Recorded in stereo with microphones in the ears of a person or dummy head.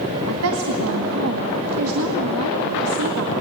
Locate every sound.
0.3 s a woman speaking: 75° right (ahead or behind), 2 m